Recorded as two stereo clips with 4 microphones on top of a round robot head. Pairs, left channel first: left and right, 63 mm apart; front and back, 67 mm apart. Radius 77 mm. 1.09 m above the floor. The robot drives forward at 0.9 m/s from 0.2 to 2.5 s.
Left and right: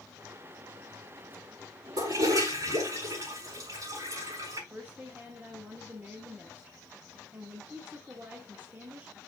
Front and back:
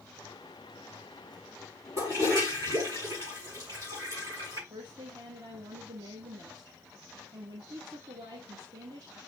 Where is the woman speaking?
155° right, 1.5 m.